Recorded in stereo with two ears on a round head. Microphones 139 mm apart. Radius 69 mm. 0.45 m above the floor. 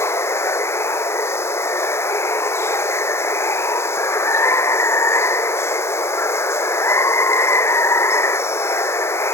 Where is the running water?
15° left (ahead or behind).